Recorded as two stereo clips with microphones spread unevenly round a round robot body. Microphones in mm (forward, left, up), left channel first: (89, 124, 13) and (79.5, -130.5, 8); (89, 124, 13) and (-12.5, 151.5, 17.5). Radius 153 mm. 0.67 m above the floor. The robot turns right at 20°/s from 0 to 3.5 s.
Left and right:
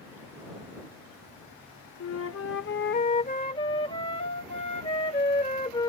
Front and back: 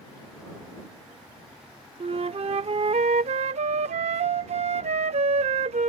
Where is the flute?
130° left; by 5.9 s 160° left.